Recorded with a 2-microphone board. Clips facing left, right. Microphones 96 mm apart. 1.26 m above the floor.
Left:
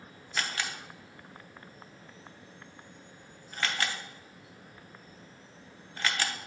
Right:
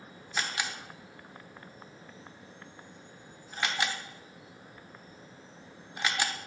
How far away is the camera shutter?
About 0.8 m.